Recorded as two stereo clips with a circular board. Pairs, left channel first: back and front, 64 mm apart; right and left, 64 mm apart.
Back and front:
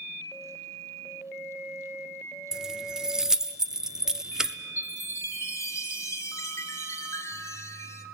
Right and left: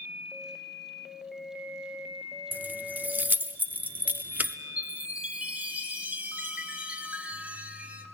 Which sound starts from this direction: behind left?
A chime, at 4.8 s.